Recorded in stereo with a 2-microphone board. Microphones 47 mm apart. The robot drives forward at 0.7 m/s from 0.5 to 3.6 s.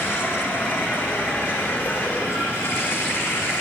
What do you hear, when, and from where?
0.0 s running water: 55° left (ahead or behind), 8 m; by 3.6 s 70° left (ahead or behind), 7 m